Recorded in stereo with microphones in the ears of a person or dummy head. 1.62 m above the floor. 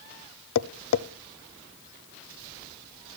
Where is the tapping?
75° left (ahead or behind), 0.6 m.